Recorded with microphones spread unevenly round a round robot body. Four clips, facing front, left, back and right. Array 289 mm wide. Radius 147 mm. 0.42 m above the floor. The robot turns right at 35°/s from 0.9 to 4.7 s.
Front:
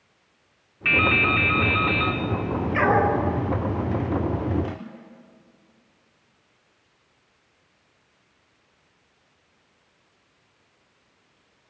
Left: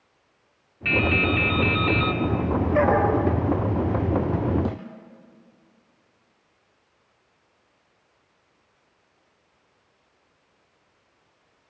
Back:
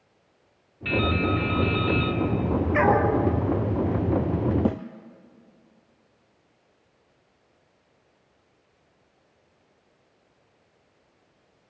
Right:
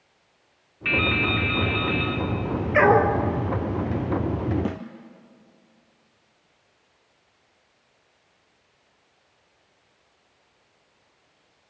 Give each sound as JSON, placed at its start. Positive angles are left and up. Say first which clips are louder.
{"t": 0.8, "sound": "dripping", "louder": "left 2 dB, front 2 dB", "azimuth_deg": 0, "distance_m": 1.3}
{"t": 2.7, "sound": "a dog barking", "louder": "right 3 dB, front 1 dB", "azimuth_deg": -105, "distance_m": 3.0}
{"t": 4.7, "sound": "a snare drum", "louder": "even, back 8 dB", "azimuth_deg": -170, "distance_m": 2.0}